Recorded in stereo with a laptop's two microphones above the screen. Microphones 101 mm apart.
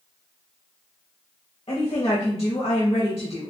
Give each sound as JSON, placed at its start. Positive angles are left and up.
{"t": 1.7, "sound": "a woman speaking", "side_deg": 65, "distance_m": 1.5}